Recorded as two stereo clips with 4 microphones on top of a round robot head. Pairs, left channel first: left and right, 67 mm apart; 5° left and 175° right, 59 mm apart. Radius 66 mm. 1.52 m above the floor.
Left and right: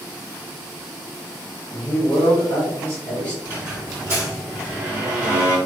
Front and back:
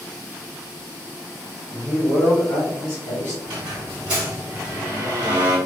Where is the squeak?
155° right, 1.0 m.